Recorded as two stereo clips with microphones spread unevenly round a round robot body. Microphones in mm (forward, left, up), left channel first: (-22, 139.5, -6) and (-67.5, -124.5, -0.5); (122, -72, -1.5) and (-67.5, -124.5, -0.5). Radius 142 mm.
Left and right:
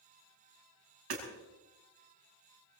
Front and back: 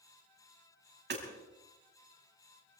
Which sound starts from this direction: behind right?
Hammering, at 1.1 s.